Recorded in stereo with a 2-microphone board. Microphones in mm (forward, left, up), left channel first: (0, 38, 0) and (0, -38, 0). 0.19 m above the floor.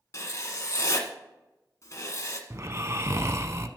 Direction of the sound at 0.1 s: 50° left (ahead or behind).